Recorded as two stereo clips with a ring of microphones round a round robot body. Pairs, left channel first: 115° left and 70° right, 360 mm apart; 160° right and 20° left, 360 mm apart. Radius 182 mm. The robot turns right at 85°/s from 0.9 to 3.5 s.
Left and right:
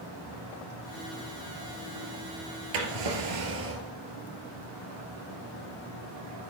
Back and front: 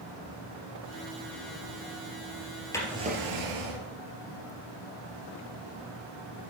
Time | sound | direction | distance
2.7 | a drawer | 75° right | 2.5 m